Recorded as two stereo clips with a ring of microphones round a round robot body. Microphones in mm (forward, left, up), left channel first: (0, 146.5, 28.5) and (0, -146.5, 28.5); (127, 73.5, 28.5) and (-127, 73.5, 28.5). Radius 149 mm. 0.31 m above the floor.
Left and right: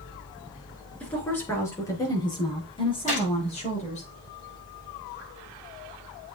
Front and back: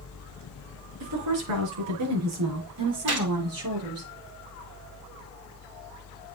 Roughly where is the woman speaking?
Behind.